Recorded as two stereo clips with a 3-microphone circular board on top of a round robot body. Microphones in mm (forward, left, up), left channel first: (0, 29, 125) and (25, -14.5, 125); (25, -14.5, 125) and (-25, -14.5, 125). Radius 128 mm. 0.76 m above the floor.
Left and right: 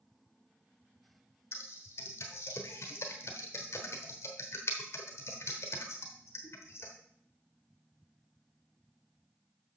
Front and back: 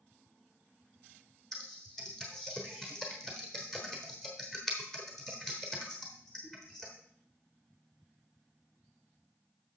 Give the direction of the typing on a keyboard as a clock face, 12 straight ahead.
9 o'clock.